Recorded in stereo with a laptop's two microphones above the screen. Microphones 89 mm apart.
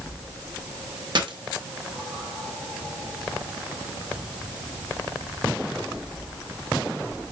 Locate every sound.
1.1 s a dropped coin: 60° right (ahead or behind), 0.7 m